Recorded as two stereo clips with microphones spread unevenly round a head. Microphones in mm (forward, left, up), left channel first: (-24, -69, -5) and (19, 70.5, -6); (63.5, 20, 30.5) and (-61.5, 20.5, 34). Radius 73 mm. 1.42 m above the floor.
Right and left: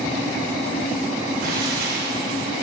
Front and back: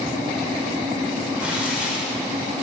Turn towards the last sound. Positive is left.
turn(degrees=100)